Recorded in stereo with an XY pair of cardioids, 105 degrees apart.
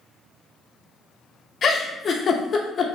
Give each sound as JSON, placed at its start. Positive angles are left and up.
{"t": 1.6, "sound": "a giggle", "azimuth_deg": 40, "distance_m": 0.6}